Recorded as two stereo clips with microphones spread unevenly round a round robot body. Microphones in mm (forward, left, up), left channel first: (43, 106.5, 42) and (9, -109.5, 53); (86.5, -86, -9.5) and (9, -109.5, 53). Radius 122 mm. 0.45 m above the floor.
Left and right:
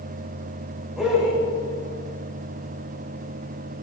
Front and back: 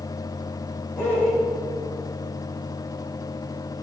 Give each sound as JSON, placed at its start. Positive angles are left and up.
{"t": 1.0, "sound": "a man speaking", "azimuth_deg": -10, "distance_m": 2.0}